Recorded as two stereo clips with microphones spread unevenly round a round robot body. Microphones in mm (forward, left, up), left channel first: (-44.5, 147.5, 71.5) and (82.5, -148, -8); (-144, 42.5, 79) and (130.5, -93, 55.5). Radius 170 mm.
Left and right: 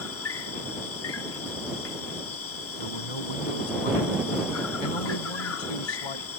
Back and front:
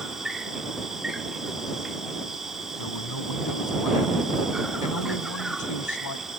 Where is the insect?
60° left.